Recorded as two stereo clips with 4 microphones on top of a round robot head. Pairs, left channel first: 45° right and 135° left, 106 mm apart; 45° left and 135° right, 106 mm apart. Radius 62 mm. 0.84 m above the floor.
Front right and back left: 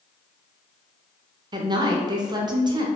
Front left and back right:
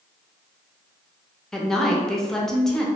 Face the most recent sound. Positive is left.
turn(degrees=125)